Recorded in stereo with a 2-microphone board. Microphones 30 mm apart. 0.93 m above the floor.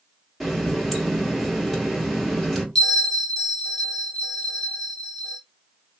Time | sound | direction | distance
0.4 | a running tap | 5° left (ahead or behind) | 1.3 m
2.8 | a bell | 25° left (ahead or behind) | 1.6 m